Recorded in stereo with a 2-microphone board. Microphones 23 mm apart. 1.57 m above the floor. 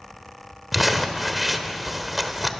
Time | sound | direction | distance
0.7 | crumpling | 5° right (ahead or behind) | 1.3 m